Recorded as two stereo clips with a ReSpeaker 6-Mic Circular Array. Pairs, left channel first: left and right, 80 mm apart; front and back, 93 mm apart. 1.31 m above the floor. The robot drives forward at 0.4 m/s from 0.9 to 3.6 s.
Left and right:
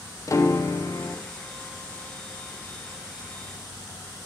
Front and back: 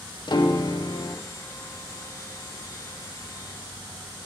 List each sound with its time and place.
0.3 s a piano: 40° left, 0.6 m; by 1.2 s 50° left, 0.5 m